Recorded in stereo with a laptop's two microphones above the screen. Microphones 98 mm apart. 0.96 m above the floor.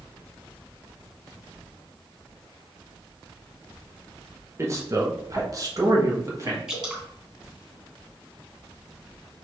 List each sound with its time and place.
4.6 s a man speaking: 30° right (ahead or behind), 0.9 m
6.7 s dripping: 10° right (ahead or behind), 2.5 m